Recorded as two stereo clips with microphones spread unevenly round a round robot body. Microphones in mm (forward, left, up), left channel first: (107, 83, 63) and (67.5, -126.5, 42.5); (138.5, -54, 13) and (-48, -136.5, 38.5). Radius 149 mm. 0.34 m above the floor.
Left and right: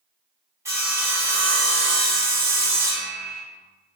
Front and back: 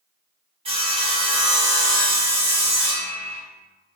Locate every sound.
0.7 s sawing: 135° right, 1.4 m